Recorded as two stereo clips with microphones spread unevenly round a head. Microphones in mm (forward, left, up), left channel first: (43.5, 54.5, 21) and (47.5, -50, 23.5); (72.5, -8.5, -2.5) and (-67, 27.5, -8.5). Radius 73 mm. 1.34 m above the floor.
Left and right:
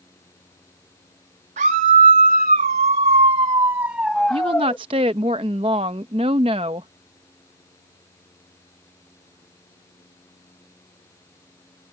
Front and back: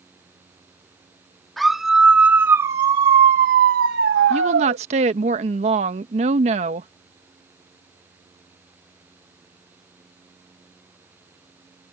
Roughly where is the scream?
Right.